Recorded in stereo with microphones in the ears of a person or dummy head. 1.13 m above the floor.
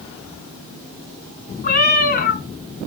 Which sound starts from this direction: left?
A cat meowing, at 1.6 s.